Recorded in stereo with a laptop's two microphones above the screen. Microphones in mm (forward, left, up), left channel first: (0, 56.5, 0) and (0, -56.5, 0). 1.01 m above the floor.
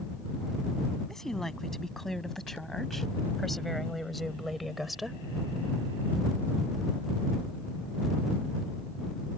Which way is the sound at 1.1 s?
5° left (ahead or behind).